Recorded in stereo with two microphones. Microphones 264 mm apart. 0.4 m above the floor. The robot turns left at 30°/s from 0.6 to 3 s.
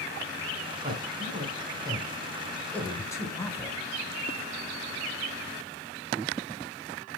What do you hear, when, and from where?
0.8 s a man speaking: 35° right (ahead or behind), 1.7 m; by 3.8 s 10° left (ahead or behind), 1.7 m